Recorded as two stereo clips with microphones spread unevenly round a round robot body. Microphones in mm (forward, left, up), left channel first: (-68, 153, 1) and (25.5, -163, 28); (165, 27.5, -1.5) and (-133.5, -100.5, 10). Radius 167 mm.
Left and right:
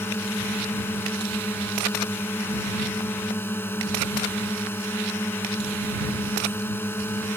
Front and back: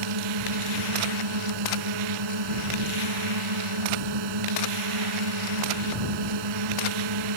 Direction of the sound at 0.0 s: 170° right.